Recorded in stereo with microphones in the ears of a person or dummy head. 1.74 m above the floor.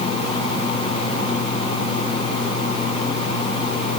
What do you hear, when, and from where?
Only background noise.